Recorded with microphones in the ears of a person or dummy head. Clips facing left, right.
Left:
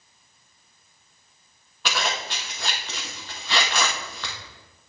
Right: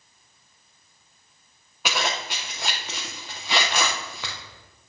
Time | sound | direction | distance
1.9 | a zipper | 5° right (ahead or behind) | 0.7 m